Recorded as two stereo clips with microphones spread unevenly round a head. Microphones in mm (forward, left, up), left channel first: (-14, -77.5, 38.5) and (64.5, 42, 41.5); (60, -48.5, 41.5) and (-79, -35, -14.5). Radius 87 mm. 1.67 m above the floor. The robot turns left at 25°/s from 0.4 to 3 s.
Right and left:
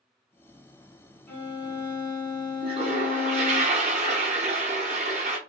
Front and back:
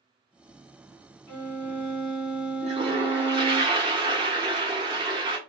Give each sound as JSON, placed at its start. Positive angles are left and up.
{"t": 1.3, "sound": "a violin", "azimuth_deg": -45, "distance_m": 1.6}
{"t": 2.6, "sound": "a toilet flushing", "azimuth_deg": 110, "distance_m": 0.5}